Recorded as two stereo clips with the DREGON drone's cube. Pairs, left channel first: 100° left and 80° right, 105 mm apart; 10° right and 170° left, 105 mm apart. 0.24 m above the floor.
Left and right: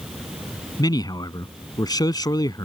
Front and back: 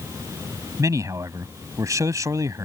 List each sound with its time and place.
0.8 s a man speaking: 125° left